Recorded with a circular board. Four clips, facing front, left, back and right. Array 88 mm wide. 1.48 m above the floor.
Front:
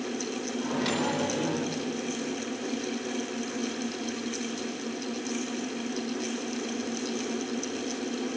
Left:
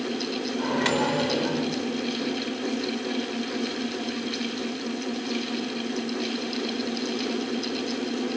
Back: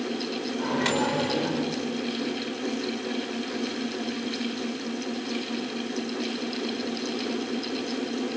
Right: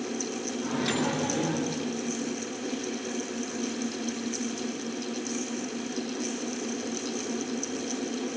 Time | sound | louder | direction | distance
0.6 | a microwave | left 4 dB, back 3 dB | 120° left | 5 m